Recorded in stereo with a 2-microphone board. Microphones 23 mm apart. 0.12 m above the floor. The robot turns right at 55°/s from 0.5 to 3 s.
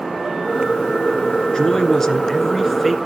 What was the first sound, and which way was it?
A man speaking, 110° left.